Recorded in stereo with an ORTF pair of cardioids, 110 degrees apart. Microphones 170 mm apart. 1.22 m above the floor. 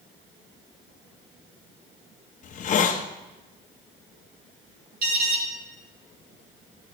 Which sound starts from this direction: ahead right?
An alarm, at 5.0 s.